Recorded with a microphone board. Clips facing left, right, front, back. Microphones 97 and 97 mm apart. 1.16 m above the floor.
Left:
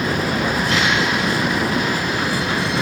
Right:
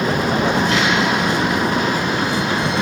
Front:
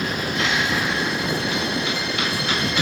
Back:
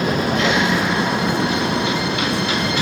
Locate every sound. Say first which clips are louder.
0.0 s a vehicle: right 3 dB, back 6 dB; 155° right